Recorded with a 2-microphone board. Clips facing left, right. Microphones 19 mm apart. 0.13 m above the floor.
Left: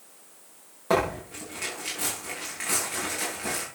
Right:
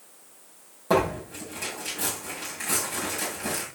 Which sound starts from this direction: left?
Tearing paper, at 0.9 s.